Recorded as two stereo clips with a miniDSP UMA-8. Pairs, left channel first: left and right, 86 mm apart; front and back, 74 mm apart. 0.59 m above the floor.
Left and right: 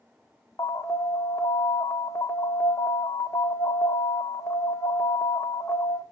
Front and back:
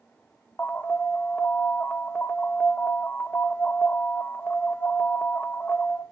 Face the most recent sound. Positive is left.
turn(degrees=55)